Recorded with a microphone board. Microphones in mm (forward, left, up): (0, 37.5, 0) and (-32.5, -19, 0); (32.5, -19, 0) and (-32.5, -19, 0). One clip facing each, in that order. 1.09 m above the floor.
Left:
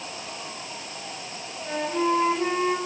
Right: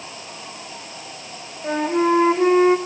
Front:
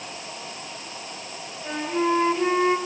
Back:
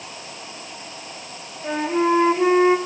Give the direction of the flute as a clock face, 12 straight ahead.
4 o'clock.